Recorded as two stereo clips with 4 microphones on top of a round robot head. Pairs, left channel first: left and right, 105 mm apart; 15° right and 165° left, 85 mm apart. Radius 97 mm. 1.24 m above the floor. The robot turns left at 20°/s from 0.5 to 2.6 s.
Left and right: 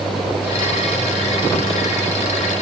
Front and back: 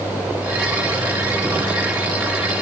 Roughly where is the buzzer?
I don't hear a buzzer.